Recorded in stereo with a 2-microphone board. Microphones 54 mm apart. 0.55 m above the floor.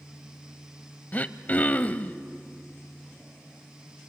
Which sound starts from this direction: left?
Throat clearing, at 1.1 s.